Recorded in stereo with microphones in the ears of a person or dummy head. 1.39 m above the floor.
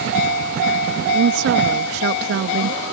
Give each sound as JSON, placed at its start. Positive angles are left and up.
{"t": 1.1, "sound": "a woman speaking", "side_deg": -70}